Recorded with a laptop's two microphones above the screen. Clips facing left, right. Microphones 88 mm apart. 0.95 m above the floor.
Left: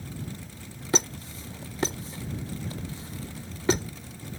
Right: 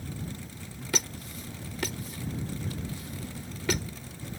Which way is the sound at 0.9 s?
30° left (ahead or behind).